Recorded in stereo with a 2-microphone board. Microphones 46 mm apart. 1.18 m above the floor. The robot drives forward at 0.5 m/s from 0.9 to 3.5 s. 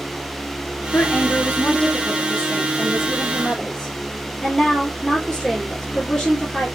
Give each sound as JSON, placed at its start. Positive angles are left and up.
{"t": 0.9, "sound": "a woman speaking", "side_deg": 45, "distance_m": 0.7}